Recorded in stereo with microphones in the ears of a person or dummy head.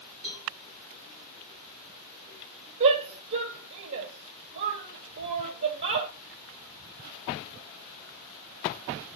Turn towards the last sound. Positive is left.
turn(degrees=-50)  # may be behind; listen again after turning